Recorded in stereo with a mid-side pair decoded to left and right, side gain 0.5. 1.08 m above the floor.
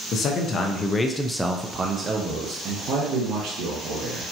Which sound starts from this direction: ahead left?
A man speaking, at 0.1 s.